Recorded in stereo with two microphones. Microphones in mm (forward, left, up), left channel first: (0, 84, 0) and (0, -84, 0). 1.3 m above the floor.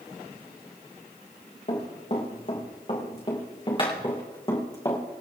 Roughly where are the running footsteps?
Left.